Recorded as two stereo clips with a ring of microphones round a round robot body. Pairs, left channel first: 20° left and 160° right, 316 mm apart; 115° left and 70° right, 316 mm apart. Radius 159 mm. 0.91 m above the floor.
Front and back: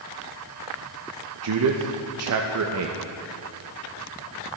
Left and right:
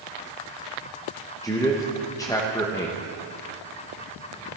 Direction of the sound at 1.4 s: 170° right.